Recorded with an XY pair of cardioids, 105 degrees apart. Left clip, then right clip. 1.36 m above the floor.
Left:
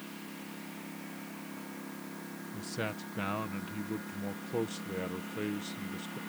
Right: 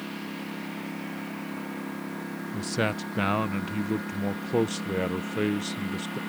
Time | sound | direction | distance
0.0 | a lawn mower | 55° right | ?
2.5 | a man speaking | 60° right | ?